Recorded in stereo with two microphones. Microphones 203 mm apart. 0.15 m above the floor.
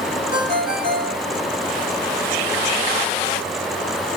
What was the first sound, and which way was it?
A ringtone, 25° right (ahead or behind).